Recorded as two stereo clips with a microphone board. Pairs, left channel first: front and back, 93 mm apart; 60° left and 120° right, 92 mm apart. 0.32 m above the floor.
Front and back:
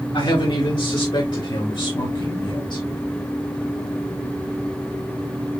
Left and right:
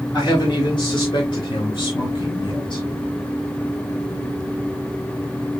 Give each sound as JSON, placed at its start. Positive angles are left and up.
{"t": 0.1, "sound": "a man speaking", "azimuth_deg": 10, "distance_m": 4.5}